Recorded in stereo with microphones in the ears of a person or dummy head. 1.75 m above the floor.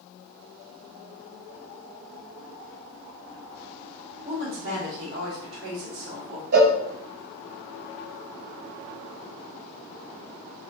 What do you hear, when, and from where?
4.2 s a woman speaking: 45° right (ahead or behind), 1.5 m; by 6.4 s 85° right, 2 m
6.5 s a cowbell: 50° right (ahead or behind), 0.7 m